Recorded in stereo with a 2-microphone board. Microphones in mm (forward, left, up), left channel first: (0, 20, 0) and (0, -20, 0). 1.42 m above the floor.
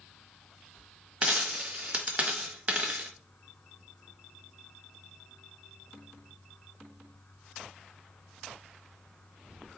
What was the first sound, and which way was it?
A dropped coin, 35° right (ahead or behind).